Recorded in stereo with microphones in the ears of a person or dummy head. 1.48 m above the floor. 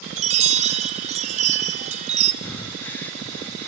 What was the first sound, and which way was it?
A chime, 40° right (ahead or behind).